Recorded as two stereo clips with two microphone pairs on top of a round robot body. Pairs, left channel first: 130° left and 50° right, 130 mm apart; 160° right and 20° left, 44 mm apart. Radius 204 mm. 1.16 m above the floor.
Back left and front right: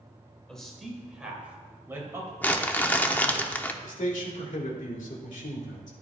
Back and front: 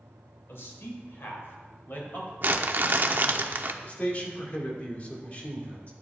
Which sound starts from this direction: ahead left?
Crumpling, at 2.4 s.